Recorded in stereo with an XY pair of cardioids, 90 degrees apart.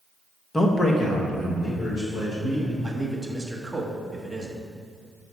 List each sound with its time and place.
0.5 s a man speaking: 25° left, 1.1 m; by 2.7 s 65° left, 4 m
2.8 s a man speaking: 5° right, 1.5 m